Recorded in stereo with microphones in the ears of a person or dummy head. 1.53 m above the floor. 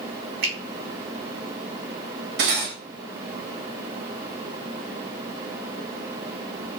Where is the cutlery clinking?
55° right (ahead or behind), 1.1 m.